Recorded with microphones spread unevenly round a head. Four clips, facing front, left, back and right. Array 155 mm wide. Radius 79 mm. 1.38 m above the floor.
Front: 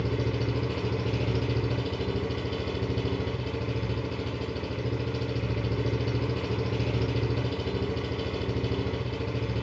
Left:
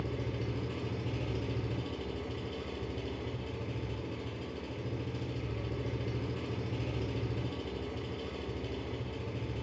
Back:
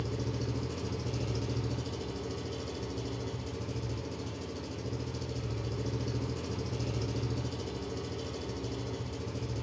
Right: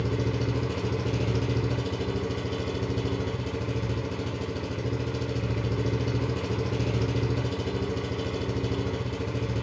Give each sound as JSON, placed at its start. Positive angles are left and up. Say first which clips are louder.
{"t": 0.0, "sound": "an engine running", "louder": "right 9 dB, front 7 dB", "azimuth_deg": -55, "distance_m": 1.5}